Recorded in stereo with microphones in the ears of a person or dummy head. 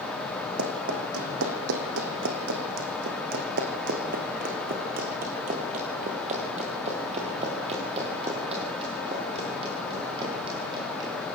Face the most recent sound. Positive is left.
turn(degrees=-30)  # may be behind; listen again after turning